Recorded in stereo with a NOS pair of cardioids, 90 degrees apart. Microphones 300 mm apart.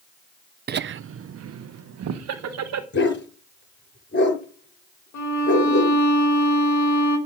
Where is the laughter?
35° right, 0.5 m; by 2.8 s 60° right, 1.8 m.